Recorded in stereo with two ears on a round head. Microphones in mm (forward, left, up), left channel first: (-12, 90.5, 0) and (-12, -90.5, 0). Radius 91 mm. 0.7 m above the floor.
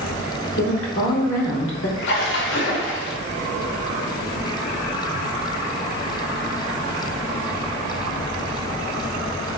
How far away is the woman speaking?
About 1.4 m.